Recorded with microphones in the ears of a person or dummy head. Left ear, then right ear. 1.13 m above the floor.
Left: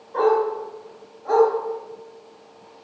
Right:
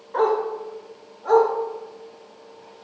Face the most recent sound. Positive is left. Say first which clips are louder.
# left 2 dB
turn(degrees=-55)  # may be behind; listen again after turning